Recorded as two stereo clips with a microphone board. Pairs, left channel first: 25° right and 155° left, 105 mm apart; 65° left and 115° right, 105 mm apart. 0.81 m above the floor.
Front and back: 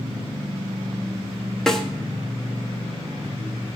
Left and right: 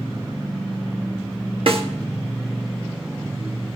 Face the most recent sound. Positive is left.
turn(degrees=-110)